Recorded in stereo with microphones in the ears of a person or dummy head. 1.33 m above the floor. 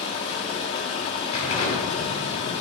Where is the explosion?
35° left (ahead or behind), 2.5 m.